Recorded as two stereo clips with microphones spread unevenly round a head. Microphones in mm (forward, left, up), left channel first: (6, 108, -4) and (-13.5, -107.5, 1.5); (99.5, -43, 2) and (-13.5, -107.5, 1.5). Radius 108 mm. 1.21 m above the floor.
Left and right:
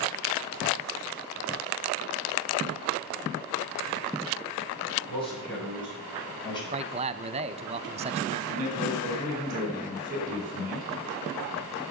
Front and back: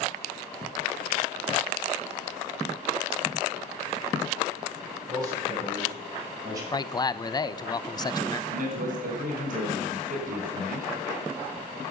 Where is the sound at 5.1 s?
155° left, 8.5 m.